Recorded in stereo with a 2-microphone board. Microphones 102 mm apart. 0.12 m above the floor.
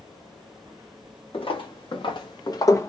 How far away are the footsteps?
About 1.6 m.